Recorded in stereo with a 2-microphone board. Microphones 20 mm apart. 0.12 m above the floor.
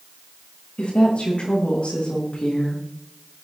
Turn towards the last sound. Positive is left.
turn(degrees=75)  # may be behind; listen again after turning